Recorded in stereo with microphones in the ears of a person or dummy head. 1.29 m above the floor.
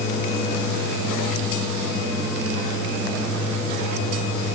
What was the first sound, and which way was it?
Only background noise.